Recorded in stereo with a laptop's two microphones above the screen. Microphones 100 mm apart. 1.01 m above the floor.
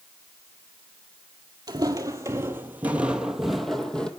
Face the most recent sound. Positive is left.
turn(degrees=10)  # may be behind; listen again after turning